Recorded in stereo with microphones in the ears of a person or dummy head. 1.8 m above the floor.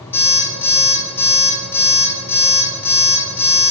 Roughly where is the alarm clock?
Centre.